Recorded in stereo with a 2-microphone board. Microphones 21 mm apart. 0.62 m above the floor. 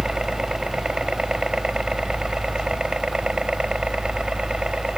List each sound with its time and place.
0.0 s a helicopter: 35° right (ahead or behind); by 5.0 s 40° right (ahead or behind)